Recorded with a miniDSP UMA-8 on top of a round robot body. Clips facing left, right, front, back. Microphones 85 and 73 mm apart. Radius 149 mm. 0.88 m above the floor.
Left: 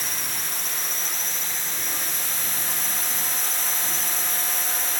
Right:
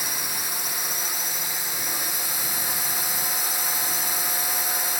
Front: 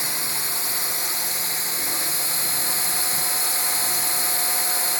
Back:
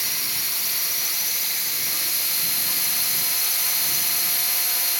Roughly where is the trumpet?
No trumpet in this recording.